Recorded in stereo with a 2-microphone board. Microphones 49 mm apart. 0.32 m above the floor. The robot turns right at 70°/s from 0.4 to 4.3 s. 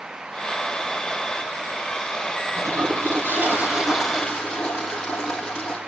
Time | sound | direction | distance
2.5 | a toilet flushing | 110° right | 5.5 m